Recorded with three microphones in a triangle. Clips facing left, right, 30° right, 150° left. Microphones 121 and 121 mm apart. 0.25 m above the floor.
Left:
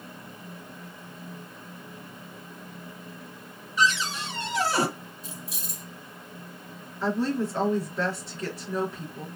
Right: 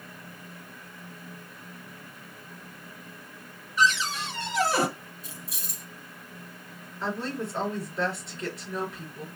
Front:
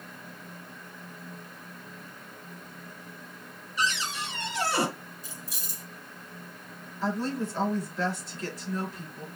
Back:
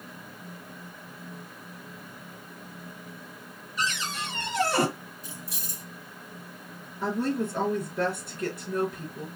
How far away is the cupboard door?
About 3 m.